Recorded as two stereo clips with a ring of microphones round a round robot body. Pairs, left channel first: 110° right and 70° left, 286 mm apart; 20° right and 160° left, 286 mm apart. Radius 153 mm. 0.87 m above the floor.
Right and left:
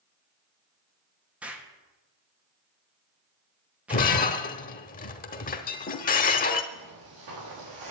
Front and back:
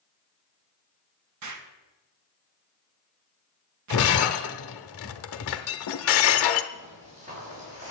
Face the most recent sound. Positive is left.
turn(degrees=90)